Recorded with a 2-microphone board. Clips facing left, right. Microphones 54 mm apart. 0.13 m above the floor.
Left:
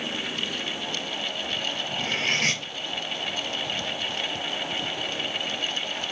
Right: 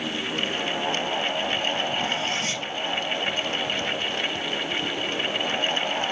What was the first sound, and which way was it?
Cutlery clinking, 60° left (ahead or behind).